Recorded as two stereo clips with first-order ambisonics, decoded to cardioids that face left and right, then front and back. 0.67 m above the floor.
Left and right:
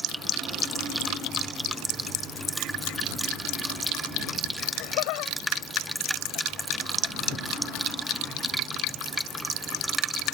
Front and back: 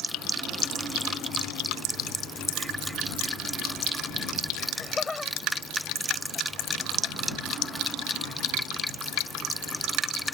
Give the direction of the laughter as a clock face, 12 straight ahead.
9 o'clock.